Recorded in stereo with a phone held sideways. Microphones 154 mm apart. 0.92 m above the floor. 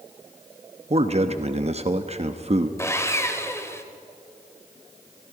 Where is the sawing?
15° left (ahead or behind), 1.6 m.